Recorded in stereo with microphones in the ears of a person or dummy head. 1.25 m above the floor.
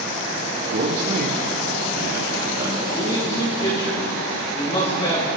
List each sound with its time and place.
0.7 s a man speaking: 60° right (ahead or behind), 2.5 m
2.9 s a man speaking: 35° left (ahead or behind), 7.5 m